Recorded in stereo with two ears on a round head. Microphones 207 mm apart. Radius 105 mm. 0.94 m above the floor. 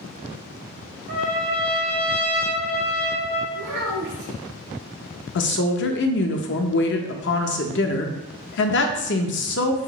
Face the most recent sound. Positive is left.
turn(degrees=55)  # may be behind; listen again after turning